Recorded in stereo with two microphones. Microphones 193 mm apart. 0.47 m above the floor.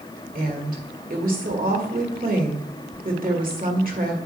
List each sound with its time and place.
0.3 s a woman speaking: 45° right (ahead or behind), 1.7 m